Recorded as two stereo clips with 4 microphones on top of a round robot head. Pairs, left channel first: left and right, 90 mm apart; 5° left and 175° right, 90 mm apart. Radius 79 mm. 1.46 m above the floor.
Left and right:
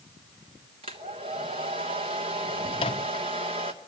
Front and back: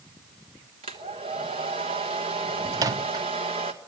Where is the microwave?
135° left, 0.7 m.